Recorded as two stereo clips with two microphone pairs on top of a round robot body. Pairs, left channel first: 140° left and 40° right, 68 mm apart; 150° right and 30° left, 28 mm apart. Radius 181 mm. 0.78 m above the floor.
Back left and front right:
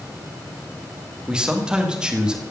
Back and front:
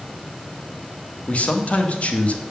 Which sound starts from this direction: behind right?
A man speaking, at 1.3 s.